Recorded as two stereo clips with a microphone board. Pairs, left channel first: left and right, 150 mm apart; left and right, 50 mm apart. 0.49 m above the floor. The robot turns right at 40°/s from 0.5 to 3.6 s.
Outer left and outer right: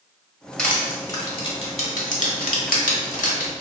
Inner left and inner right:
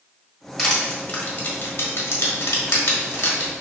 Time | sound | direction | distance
0.6 | crushing | 5° left (ahead or behind) | 1.1 m